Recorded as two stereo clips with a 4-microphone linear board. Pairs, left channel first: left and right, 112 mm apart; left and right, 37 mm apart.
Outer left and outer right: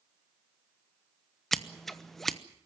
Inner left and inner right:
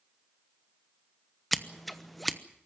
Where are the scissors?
Centre (ahead or behind), 1.0 m.